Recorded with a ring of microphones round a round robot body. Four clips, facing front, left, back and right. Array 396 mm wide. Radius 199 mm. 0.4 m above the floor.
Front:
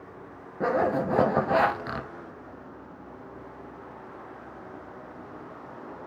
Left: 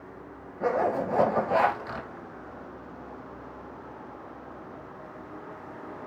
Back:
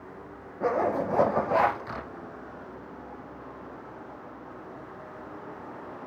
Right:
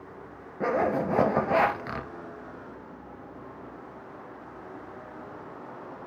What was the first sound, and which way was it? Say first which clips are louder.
A zipper: even, front 1 dB; 35° right.